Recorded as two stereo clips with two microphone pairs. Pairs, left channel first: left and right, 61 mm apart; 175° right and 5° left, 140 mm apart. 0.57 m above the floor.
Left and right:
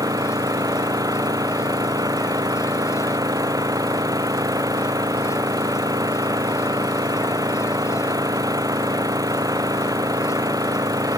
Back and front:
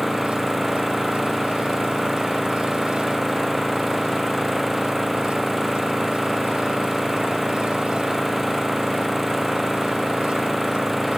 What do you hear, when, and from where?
0.0 s an engine running: 85° right